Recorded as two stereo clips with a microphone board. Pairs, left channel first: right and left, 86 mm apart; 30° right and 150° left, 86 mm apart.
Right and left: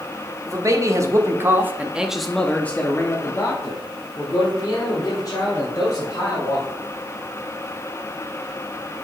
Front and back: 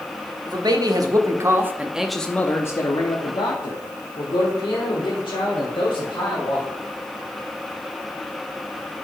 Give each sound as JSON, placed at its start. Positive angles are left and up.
{"t": 0.5, "sound": "a man speaking", "azimuth_deg": 130, "distance_m": 1.1}